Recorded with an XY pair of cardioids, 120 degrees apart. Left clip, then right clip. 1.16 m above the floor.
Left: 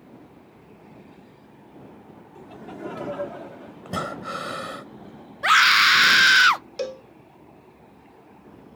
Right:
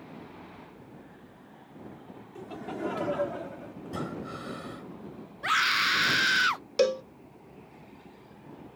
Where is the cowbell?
40° right.